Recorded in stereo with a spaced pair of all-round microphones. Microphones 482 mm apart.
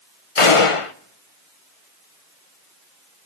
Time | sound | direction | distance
0.4 | a gunshot | 75° left (ahead or behind) | 0.9 m